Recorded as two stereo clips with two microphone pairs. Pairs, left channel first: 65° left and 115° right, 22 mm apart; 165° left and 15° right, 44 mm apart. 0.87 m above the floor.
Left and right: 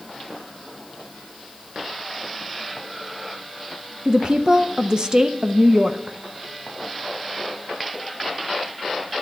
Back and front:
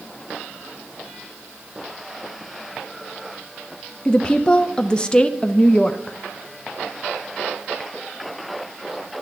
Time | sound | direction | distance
4.0 | a woman speaking | 135° right | 0.6 m